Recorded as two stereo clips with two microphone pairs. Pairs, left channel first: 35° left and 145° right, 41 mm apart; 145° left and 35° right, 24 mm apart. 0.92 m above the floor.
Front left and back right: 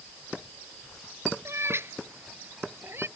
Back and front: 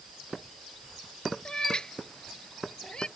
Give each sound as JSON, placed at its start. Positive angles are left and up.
{"t": 1.4, "sound": "a cat meowing", "azimuth_deg": -155}